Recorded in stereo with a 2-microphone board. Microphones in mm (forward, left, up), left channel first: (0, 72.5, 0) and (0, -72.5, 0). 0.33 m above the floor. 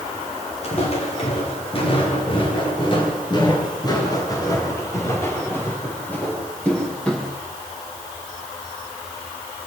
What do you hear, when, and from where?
0.6 s footsteps: 50° left (ahead or behind), 6.5 m; by 7.3 s 5° left (ahead or behind), 5.5 m